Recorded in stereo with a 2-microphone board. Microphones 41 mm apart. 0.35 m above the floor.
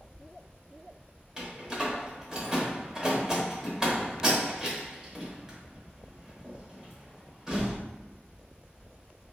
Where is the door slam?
15° right (ahead or behind), 0.7 m.